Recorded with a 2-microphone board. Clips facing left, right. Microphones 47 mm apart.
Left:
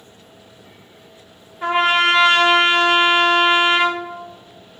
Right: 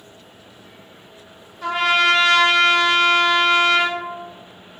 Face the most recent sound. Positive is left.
turn(degrees=30)  # may be behind; listen again after turning